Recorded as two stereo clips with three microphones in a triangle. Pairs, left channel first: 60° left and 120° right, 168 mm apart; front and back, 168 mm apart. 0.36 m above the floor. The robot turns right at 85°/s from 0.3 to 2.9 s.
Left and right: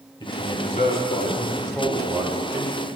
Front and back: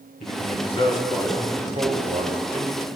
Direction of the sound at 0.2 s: 10° left.